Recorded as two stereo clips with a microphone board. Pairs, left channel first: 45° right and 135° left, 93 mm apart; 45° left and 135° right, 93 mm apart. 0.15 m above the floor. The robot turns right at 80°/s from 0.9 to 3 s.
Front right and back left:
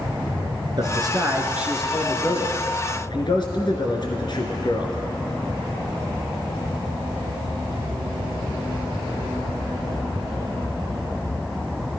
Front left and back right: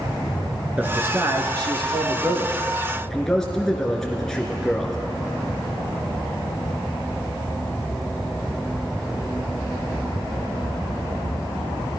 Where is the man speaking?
155° left, 1.7 m; by 5.0 s 40° right, 1.7 m.